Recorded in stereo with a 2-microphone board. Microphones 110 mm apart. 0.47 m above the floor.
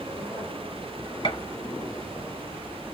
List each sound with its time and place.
1.2 s a gunshot: 45° left (ahead or behind), 2 m